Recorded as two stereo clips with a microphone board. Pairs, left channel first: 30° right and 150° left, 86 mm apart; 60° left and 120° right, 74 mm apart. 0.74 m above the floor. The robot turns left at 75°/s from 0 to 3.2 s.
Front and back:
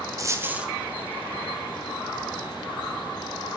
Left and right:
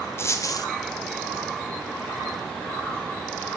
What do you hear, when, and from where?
0.2 s a dropped coin: 110° left, 0.8 m; by 0.7 s 75° left, 0.8 m